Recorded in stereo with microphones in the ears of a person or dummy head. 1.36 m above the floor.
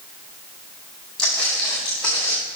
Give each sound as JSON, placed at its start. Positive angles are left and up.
{"t": 1.2, "sound": "footsteps", "side_deg": 5, "distance_m": 2.5}